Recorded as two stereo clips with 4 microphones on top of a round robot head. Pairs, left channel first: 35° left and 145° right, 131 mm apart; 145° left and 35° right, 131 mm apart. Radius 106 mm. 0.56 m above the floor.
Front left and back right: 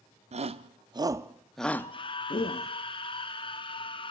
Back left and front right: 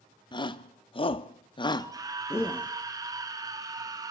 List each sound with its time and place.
0.3 s a shout: 165° right, 1.2 m; by 2.7 s 70° left, 1.2 m
1.8 s a scream: 10° left, 1.4 m